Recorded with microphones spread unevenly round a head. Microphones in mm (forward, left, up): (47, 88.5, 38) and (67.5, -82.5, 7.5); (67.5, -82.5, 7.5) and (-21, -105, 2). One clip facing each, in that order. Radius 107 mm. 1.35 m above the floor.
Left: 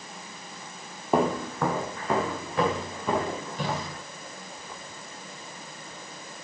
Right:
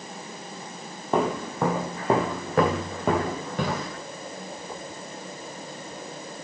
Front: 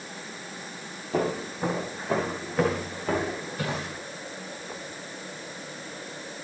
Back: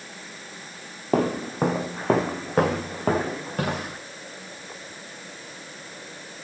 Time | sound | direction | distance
1.1 | footsteps | 170° left | 1.9 m